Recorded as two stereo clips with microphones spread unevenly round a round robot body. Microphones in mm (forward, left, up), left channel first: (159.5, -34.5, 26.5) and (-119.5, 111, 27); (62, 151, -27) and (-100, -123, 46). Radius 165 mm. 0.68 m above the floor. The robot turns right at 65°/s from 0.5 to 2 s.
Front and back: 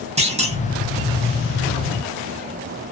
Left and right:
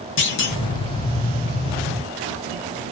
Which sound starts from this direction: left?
A clunk, at 0.2 s.